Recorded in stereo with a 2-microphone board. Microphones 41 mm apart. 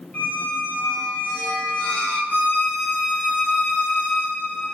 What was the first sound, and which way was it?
A squeak, 40° left (ahead or behind).